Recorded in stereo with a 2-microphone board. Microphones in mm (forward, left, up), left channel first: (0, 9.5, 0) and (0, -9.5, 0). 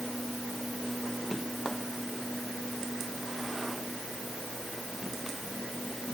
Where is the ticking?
No ticking in this recording.